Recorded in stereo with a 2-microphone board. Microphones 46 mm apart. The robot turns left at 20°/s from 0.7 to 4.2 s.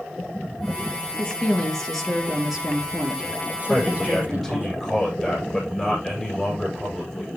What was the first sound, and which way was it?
A woman speaking, 20° left.